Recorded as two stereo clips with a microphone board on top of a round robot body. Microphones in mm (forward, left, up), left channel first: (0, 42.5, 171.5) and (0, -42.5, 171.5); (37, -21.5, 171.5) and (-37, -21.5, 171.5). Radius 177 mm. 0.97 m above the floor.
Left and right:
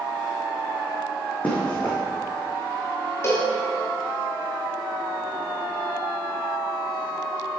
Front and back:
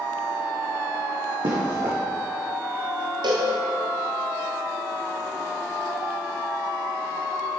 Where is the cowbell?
150° left, 0.7 m.